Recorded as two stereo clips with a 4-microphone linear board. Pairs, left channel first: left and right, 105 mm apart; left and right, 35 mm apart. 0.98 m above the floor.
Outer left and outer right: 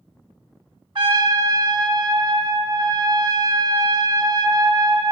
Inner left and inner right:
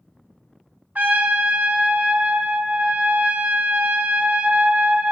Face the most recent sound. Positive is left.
turn(degrees=-45)  # may be behind; listen again after turning